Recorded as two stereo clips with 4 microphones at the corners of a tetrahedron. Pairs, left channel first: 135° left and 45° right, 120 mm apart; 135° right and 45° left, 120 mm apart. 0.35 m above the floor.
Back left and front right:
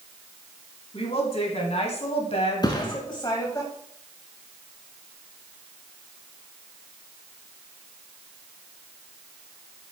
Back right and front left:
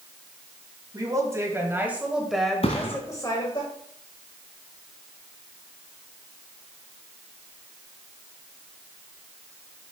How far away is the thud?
About 1.7 m.